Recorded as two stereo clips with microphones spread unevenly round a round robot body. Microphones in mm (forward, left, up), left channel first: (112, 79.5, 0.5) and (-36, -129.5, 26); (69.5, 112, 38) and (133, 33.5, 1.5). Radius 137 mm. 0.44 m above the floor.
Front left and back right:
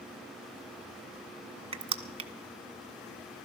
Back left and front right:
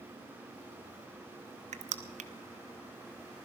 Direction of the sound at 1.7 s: 55° right.